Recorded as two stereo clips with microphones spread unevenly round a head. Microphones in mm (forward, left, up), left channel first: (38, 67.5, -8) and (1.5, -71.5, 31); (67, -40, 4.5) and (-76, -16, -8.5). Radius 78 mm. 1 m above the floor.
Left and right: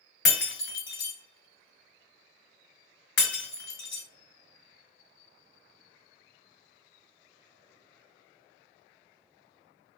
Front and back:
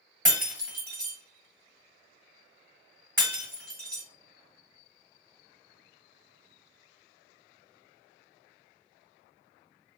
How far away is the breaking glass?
About 1.4 m.